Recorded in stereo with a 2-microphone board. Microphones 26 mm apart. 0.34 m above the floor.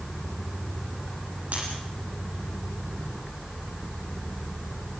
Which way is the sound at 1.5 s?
60° right (ahead or behind).